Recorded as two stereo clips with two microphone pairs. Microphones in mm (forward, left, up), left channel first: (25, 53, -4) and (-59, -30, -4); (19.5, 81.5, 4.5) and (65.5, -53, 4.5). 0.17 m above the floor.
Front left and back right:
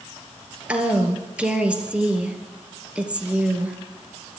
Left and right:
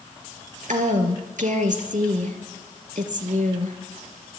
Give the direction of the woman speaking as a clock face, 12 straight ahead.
2 o'clock.